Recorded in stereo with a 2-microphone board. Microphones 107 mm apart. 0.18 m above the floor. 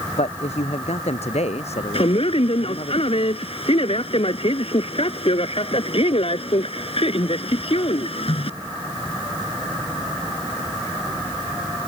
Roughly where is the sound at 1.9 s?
Left.